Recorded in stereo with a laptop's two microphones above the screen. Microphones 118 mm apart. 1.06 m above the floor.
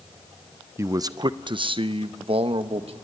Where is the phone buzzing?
I don't hear a phone buzzing.